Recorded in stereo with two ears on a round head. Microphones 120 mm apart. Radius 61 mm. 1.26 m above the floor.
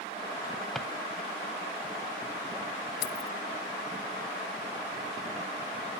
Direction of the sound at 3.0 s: 85° left.